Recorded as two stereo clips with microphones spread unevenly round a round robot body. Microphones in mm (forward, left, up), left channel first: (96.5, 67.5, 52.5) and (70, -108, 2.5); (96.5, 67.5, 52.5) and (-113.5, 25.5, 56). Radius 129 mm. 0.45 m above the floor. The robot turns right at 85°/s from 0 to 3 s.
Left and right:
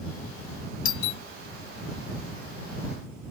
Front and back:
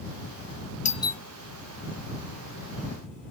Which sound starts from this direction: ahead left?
A doorbell, at 0.8 s.